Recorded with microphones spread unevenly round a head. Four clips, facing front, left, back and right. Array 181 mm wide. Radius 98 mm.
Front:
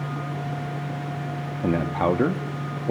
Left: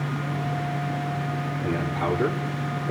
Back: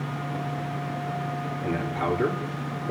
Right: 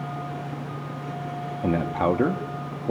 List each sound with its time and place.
1.6 s a man speaking: 40° right, 3 m